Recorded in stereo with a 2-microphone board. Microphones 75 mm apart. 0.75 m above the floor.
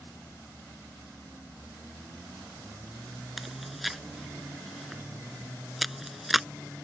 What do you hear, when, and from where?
3.4 s chewing: centre (ahead or behind)